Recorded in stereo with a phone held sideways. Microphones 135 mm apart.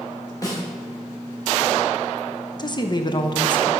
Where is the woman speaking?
35° left (ahead or behind), 0.6 m.